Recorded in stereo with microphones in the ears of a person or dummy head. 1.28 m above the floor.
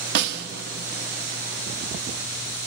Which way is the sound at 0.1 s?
65° right (ahead or behind).